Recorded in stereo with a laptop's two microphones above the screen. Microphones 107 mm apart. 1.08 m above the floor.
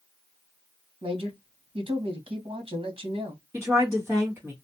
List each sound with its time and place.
1.0 s a man speaking: 60° right (ahead or behind), 1.2 m
3.5 s a woman speaking: 25° right (ahead or behind), 1.3 m